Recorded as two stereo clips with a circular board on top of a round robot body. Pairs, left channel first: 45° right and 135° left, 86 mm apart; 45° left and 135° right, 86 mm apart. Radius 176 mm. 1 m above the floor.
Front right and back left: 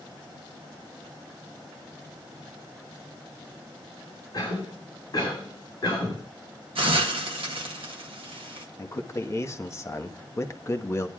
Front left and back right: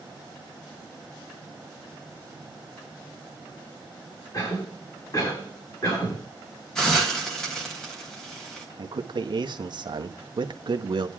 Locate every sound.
4.3 s a cough: straight ahead, 9.5 m
6.8 s a hiss: 130° left, 1.4 m
8.8 s a man speaking: 100° right, 1.2 m